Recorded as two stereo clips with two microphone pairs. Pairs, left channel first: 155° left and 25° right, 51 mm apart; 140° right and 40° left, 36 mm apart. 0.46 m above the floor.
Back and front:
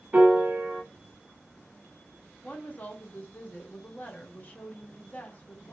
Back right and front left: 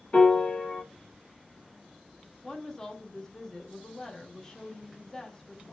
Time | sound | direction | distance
0.1 | a piano | 85° right | 1.1 m
2.4 | a woman speaking | 160° left | 0.8 m